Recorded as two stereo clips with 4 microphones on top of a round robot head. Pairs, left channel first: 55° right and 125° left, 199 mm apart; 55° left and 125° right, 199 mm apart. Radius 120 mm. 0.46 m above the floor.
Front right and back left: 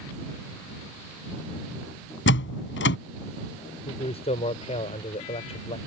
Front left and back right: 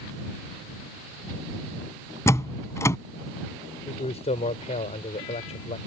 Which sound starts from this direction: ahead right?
A door slam, at 2.3 s.